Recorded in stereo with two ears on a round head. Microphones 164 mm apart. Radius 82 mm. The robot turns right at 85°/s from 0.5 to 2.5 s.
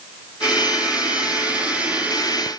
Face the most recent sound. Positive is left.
No sound to turn to.